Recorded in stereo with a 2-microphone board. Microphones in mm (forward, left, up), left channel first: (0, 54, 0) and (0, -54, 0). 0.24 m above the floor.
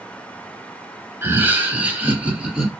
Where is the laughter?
20° right (ahead or behind), 1.1 m; by 2.7 s 10° right (ahead or behind), 2.5 m.